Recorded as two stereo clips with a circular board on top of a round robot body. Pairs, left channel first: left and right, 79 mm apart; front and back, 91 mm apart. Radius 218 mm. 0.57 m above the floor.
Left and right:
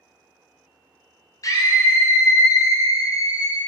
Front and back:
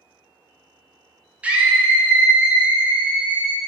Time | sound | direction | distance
1.4 | a scream | 110° left | 1.0 m